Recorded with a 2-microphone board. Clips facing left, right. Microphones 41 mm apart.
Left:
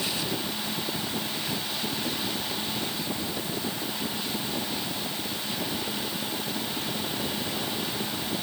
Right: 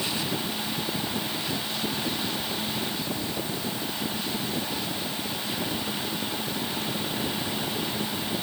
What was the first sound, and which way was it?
Only background noise.